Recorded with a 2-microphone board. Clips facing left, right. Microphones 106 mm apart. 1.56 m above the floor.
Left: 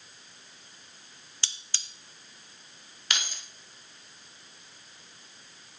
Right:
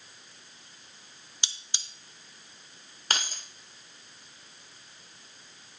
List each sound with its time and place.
1.4 s cutlery clinking: 20° right (ahead or behind), 0.6 m
3.1 s keys jangling: 40° right (ahead or behind), 0.9 m